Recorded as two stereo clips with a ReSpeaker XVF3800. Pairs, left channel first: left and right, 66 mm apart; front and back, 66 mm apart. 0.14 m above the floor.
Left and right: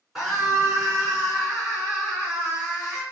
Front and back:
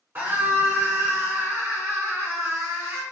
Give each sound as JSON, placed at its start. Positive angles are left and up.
{"t": 0.1, "sound": "a scream", "azimuth_deg": -170, "distance_m": 2.0}